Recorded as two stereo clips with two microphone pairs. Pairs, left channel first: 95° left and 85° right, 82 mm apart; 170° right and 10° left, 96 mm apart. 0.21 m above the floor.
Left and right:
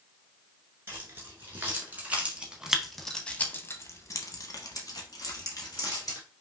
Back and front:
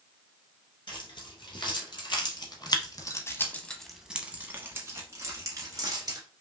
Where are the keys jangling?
145° right, 2.0 m; by 6.2 s 55° left, 2.0 m.